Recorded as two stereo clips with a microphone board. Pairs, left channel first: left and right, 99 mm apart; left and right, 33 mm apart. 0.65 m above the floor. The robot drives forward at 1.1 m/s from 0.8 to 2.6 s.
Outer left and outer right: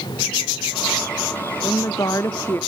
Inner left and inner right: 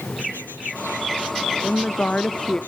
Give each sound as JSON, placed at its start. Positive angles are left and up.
{"t": 1.6, "sound": "a woman speaking", "side_deg": 35, "distance_m": 0.9}